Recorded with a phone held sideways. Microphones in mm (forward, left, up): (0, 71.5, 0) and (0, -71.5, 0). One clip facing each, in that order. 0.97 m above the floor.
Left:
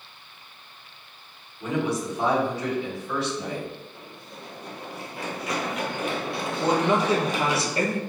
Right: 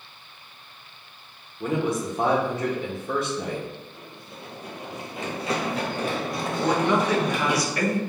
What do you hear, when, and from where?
1.6 s a man speaking: 50° right (ahead or behind), 1.2 m
4.0 s running footsteps: 5° left (ahead or behind), 1.5 m; by 7.6 s 60° right (ahead or behind), 1.9 m
6.6 s a man speaking: 25° left (ahead or behind), 0.7 m